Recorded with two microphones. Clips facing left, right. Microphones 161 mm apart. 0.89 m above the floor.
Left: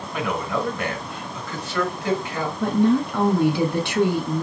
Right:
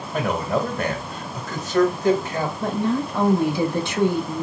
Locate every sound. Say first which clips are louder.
0.1 s a man speaking: right 3 dB; 40° right (ahead or behind), 1.2 m
2.6 s a woman speaking: left 6 dB; 60° left (ahead or behind), 1.6 m